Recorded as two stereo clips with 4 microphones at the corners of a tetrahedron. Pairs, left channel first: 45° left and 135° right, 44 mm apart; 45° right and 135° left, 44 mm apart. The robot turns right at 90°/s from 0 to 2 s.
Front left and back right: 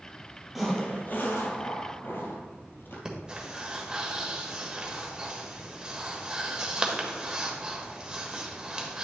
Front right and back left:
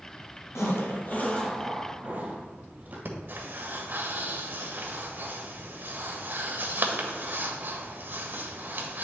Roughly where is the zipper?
Ahead right.